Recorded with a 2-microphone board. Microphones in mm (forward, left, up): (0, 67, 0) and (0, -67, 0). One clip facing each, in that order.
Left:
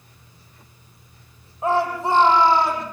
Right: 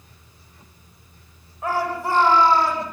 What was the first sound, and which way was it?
A shout, 20° left (ahead or behind).